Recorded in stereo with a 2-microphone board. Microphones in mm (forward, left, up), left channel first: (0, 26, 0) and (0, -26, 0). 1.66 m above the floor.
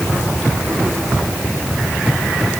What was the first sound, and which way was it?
Only background noise.